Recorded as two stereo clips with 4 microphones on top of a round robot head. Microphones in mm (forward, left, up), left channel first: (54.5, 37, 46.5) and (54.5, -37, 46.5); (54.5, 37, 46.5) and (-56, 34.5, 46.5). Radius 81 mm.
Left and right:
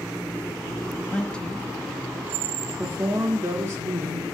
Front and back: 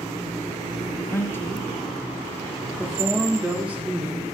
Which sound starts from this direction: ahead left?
A woman speaking, at 1.1 s.